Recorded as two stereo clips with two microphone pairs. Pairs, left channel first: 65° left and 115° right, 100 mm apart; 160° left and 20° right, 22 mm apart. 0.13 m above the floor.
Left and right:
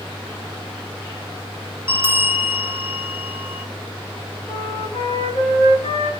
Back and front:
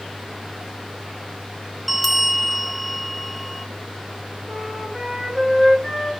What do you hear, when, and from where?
1.9 s a bell: 115° right, 1.1 m
4.5 s a flute: 65° left, 5.5 m